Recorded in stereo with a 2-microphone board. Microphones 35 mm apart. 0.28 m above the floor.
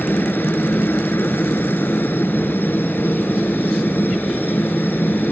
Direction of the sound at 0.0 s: 70° left (ahead or behind).